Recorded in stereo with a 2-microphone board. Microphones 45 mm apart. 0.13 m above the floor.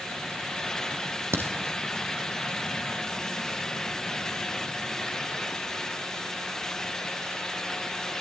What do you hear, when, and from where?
1.3 s a crack: 70° right (ahead or behind), 3 m